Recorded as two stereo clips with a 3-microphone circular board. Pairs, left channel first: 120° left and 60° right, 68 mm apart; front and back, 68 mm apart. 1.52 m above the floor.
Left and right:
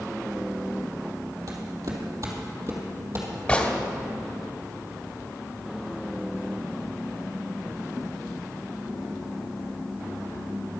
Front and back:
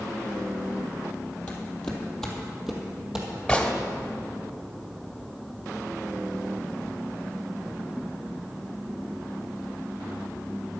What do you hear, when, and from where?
1.5 s footsteps: 65° right, 2.5 m; by 3.3 s 105° right, 3 m
3.5 s a gunshot: 65° left, 1.4 m